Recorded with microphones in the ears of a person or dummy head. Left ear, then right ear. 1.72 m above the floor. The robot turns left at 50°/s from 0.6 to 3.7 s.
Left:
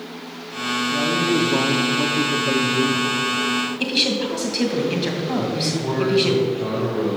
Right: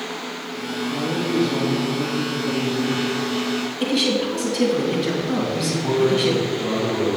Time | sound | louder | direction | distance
0.9 | a man speaking | left 2 dB | straight behind | 0.9 m
3.8 | a woman speaking | right 2 dB | 30° left (ahead or behind) | 2.5 m
5.4 | a man speaking | even | 65° left (ahead or behind) | 4 m